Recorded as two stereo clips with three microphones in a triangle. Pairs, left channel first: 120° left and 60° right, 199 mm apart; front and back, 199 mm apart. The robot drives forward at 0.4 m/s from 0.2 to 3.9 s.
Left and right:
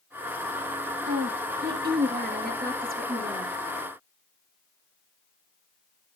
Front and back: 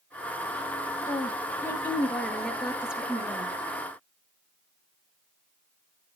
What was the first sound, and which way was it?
A woman speaking, 75° right.